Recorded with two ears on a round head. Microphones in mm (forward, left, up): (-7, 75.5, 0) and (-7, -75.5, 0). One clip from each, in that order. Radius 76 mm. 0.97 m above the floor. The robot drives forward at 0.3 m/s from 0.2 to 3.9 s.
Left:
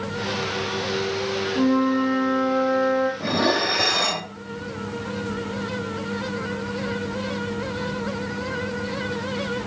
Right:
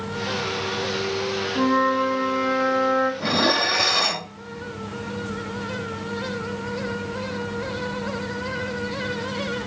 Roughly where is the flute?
Right.